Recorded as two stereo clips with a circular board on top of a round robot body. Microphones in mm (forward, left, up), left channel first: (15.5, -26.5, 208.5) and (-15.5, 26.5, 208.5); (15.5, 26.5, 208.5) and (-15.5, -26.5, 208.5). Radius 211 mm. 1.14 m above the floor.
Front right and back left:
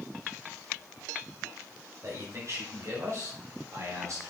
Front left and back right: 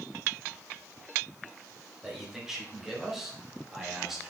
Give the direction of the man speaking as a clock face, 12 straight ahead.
7 o'clock.